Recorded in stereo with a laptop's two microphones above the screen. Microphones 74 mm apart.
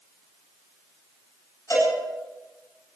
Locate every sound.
1.7 s a cowbell: 45° left (ahead or behind), 8 m